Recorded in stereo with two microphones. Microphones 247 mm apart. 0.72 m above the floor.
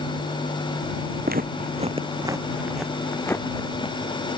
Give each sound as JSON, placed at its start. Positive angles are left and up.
{"t": 1.2, "sound": "footsteps", "side_deg": -40}